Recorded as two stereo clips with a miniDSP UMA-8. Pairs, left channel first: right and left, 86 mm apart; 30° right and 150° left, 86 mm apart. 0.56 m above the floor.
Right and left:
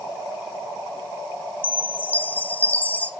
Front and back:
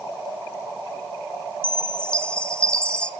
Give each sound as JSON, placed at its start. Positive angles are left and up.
{"t": 1.6, "sound": "a chime", "azimuth_deg": -85, "distance_m": 0.5}